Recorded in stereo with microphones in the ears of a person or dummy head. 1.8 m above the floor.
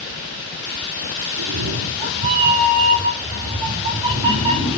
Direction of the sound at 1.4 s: 65° right (ahead or behind).